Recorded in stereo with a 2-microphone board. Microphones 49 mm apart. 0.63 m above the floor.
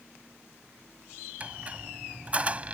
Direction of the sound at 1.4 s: 25° right (ahead or behind).